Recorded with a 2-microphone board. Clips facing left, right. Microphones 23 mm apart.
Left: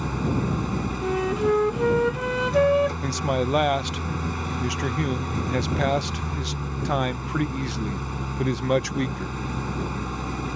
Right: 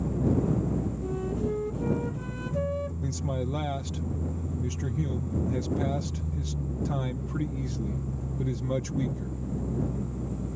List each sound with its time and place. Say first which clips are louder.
0.0 s an engine running: left 1 dB; 80° left
1.0 s a flute: left 8 dB; 85° left
3.0 s a man speaking: left 8 dB; 50° left (ahead or behind)